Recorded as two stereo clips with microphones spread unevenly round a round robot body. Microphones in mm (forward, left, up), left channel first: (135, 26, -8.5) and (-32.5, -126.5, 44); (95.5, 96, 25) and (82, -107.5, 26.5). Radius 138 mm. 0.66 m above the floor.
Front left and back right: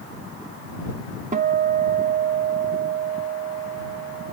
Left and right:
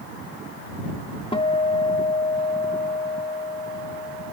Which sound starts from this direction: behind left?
A guitar, at 1.3 s.